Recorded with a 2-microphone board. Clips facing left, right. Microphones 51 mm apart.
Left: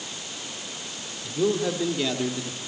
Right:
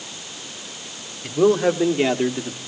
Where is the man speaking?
50° right (ahead or behind), 1.8 m; by 2.6 s 25° right (ahead or behind), 1.4 m.